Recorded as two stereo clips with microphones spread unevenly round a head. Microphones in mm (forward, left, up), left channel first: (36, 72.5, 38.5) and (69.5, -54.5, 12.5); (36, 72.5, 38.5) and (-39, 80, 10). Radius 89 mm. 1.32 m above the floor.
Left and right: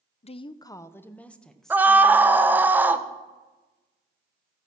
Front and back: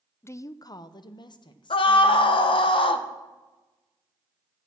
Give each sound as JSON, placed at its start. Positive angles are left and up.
{"t": 0.2, "sound": "a woman speaking", "azimuth_deg": 60, "distance_m": 0.6}
{"t": 1.7, "sound": "a scream", "azimuth_deg": 0, "distance_m": 1.2}